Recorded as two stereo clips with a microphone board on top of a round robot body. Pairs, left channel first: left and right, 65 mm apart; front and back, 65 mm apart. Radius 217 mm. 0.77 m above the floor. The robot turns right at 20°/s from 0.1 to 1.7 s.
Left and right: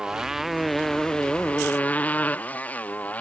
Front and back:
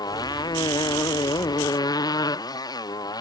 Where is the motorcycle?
10° right; by 3.2 s 20° left.